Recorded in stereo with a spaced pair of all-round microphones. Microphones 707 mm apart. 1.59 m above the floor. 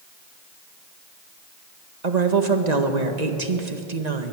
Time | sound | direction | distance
2.0 | a woman speaking | 65° right (ahead or behind) | 1.9 m